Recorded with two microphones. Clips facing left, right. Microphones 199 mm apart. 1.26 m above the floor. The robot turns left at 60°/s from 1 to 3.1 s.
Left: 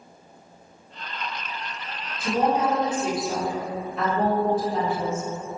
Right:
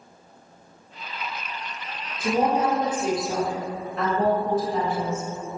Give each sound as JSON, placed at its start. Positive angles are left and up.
{"t": 2.2, "sound": "a woman speaking", "azimuth_deg": -130, "distance_m": 1.1}